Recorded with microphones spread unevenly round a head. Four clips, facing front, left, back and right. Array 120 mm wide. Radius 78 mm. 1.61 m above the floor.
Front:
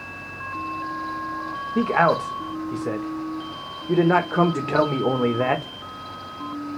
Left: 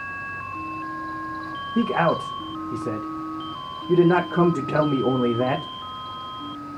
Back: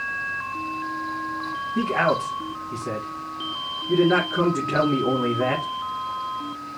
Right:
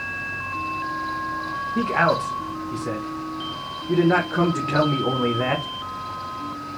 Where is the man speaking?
15° left, 1.2 m.